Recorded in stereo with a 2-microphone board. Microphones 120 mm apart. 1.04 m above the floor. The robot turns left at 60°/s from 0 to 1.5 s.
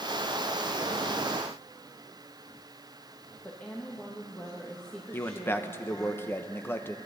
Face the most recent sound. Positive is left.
turn(degrees=20)  # may be behind; listen again after turning